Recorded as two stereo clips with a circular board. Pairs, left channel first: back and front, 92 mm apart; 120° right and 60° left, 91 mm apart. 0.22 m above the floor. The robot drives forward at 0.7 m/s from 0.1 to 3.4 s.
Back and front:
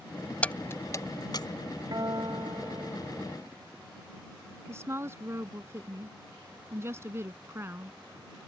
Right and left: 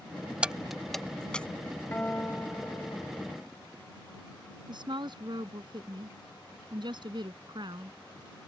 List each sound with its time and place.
0.4 s keys jangling: 125° left; by 1.5 s 165° left
1.9 s a guitar: 45° right; by 3.4 s 55° right
4.7 s a woman speaking: 55° left